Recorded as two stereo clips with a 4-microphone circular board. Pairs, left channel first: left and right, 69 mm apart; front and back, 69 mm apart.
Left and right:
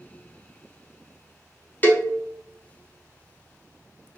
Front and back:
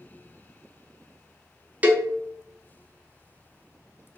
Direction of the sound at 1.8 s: 130° left.